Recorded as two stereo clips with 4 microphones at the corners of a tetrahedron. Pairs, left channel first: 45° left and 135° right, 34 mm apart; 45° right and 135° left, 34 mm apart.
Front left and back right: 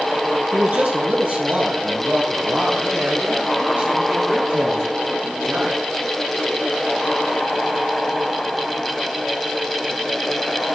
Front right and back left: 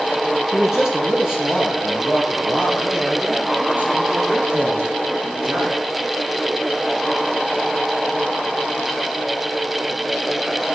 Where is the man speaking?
145° right, 1.7 m; by 5.8 s 170° left, 4 m.